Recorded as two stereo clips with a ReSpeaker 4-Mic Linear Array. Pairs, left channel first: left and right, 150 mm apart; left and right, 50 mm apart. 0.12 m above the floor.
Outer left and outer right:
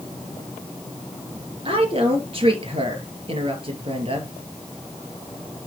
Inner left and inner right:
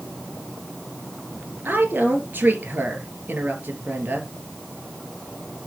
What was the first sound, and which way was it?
A woman speaking, 40° right (ahead or behind).